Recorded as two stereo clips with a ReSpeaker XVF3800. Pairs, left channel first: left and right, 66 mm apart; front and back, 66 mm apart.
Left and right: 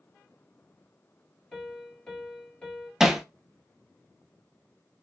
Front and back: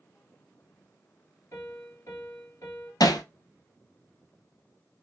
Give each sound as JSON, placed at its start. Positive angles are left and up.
{"t": 1.5, "sound": "a piano", "azimuth_deg": 15, "distance_m": 1.8}
{"t": 3.0, "sound": "hammering", "azimuth_deg": -5, "distance_m": 0.6}